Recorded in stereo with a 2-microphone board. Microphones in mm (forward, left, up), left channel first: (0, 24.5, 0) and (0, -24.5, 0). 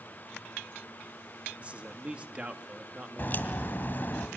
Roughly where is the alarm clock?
I don't hear an alarm clock.